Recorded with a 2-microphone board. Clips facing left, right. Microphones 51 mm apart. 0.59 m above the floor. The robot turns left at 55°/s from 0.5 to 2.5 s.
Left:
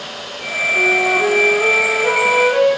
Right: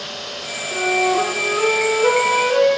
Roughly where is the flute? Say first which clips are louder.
Left 2 dB; ahead right.